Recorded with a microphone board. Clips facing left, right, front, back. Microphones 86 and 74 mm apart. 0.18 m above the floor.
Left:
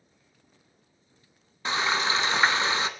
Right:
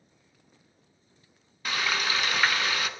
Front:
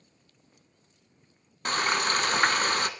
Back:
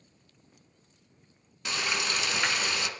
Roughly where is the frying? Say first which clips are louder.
Left 3 dB, front 5 dB; ahead left.